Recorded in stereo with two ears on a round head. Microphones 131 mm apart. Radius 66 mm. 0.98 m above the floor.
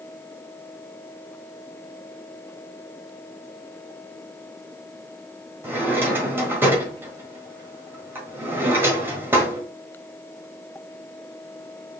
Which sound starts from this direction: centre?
A drawer, at 5.6 s.